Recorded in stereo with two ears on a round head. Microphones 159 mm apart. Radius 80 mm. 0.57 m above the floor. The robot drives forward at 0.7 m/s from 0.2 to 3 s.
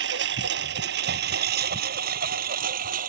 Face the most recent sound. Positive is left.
turn(degrees=-50)  # may be behind; listen again after turning